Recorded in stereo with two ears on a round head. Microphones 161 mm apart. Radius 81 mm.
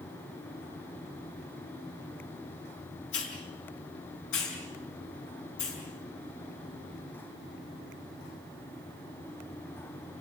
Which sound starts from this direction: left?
A hiss, at 3.1 s.